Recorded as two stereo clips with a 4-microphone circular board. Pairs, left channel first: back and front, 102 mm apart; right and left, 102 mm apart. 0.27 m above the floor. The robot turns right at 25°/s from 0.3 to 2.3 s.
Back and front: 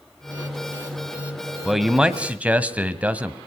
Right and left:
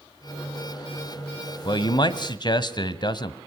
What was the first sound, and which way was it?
A man speaking, 90° right.